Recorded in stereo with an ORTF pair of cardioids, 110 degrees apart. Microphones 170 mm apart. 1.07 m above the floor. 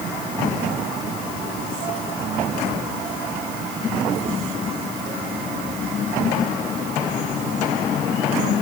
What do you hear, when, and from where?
Only background noise.